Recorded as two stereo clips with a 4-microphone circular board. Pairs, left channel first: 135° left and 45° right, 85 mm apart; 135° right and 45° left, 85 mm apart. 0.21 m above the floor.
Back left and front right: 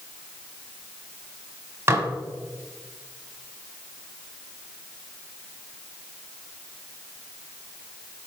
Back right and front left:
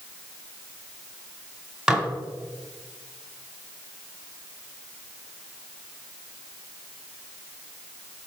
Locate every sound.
1.9 s dishes clattering: 30° right, 1.0 m